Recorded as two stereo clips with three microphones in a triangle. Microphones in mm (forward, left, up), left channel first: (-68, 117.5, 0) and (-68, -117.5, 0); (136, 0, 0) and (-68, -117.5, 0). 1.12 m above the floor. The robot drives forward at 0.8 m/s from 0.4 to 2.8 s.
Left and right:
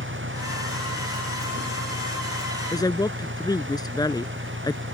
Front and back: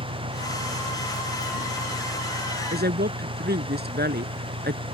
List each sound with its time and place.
0.0 s an engine running: 120° right; by 4.9 s 135° right
2.7 s a woman speaking: 165° left